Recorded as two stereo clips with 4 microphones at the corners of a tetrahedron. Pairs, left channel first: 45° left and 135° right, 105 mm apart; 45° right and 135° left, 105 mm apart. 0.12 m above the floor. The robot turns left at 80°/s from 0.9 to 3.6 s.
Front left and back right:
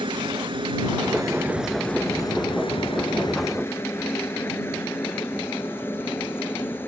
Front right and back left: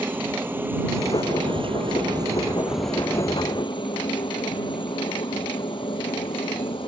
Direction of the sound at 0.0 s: 155° right.